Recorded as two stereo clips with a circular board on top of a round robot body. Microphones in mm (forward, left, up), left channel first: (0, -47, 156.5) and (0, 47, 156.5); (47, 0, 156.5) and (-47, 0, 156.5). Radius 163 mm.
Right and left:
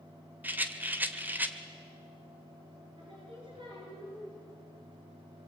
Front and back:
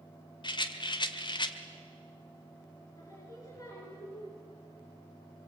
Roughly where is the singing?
Ahead left.